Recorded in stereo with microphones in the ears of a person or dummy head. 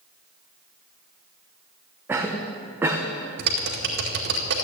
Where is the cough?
10° right (ahead or behind), 1.1 m.